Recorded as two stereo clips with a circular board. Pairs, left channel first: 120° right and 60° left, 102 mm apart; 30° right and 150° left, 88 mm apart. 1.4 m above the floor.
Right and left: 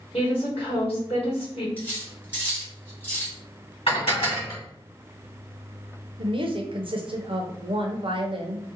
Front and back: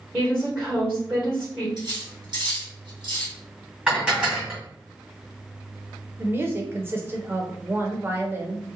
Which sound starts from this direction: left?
A woman speaking, at 6.2 s.